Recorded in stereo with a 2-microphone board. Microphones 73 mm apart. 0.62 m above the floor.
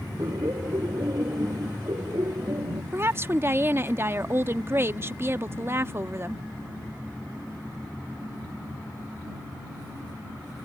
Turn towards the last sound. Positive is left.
turn(degrees=-35)  # may be behind; listen again after turning